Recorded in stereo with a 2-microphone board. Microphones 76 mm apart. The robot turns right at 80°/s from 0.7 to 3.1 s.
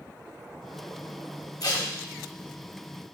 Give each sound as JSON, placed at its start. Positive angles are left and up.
{"t": 1.6, "sound": "tape being pulled", "side_deg": 55, "distance_m": 1.3}